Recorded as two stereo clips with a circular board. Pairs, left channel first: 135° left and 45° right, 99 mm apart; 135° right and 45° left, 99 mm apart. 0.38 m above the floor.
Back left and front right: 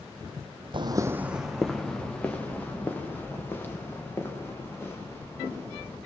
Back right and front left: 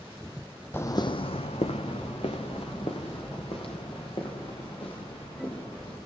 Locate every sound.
0.7 s footsteps: 65° right, 0.7 m; by 6.0 s 160° right, 7.5 m